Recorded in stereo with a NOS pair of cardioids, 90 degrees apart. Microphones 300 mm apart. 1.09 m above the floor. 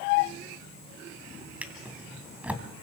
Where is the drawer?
5° right, 2.5 m.